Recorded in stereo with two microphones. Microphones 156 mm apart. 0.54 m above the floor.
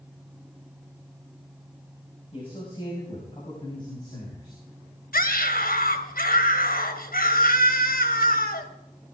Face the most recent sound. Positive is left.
turn(degrees=70)  # may be behind; listen again after turning